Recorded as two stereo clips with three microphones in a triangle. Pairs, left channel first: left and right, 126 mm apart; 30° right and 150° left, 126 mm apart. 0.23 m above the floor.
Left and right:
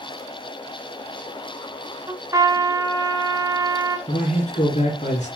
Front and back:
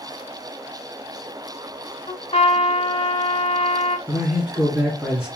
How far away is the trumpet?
About 2.5 m.